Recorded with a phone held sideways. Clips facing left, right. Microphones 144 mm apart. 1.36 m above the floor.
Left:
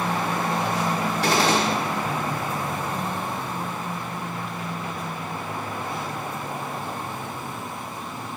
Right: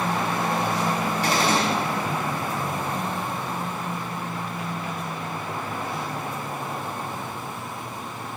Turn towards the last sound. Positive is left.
turn(degrees=80)